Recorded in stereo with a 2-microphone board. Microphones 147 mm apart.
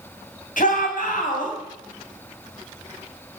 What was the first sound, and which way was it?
A shout, 65° left (ahead or behind).